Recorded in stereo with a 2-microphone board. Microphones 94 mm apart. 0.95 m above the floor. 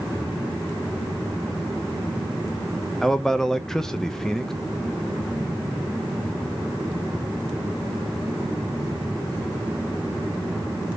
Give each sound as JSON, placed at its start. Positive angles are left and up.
{"t": 3.0, "sound": "a man speaking", "side_deg": 5, "distance_m": 0.9}